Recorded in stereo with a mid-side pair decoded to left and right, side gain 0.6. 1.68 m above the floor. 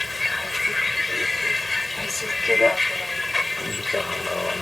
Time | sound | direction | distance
0.0 | a vehicle | 15° left | ?